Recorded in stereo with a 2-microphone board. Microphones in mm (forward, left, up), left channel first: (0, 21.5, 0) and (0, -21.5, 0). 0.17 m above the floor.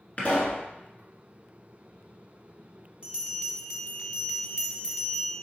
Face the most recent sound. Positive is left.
turn(degrees=-25)  # may be behind; listen again after turning